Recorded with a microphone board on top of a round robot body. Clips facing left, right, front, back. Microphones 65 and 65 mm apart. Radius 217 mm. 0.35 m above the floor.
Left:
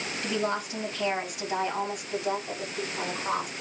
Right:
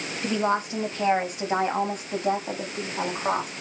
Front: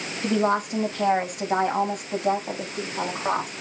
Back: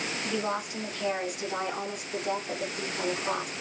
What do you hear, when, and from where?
0.2 s a woman speaking: 25° right, 4.5 m; by 3.5 s 45° right, 5.5 m